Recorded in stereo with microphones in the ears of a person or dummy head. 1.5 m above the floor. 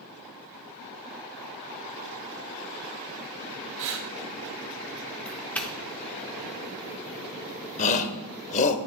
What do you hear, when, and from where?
3.8 s breathing: 60° right (ahead or behind), 1.3 m
5.2 s a doorbell: 10° left (ahead or behind), 0.7 m
7.8 s a shout: 40° left (ahead or behind), 0.9 m